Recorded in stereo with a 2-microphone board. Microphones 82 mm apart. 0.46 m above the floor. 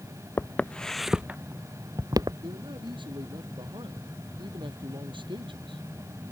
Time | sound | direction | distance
0.4 | footsteps | 25° left (ahead or behind) | ?
2.4 | a man speaking | 80° right | ?